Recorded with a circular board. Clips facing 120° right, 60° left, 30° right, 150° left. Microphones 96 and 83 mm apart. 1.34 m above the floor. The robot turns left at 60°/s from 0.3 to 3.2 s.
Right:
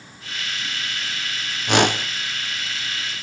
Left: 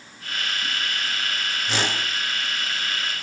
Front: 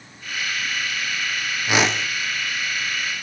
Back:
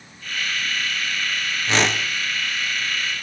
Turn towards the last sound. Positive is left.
turn(degrees=165)